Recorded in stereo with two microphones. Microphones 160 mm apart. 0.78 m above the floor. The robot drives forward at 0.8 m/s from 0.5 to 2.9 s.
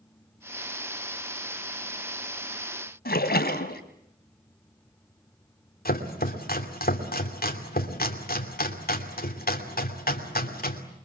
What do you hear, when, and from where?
3.0 s a splash: 80° left, 2 m
5.8 s chopping: 70° left (ahead or behind), 2.5 m